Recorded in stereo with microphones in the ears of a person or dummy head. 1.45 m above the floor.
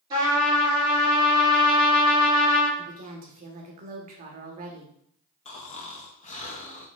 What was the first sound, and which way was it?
A trumpet, 25° right (ahead or behind).